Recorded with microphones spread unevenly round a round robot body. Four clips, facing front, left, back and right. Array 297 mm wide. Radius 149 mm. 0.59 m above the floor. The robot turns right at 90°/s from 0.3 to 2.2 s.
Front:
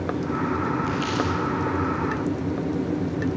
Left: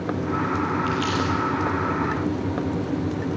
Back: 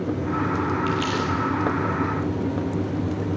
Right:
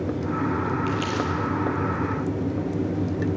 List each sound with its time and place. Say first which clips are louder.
0.9 s crumpling: left 2 dB, back 1 dB; 135° right, 3 m; by 1.3 s 100° right, 3 m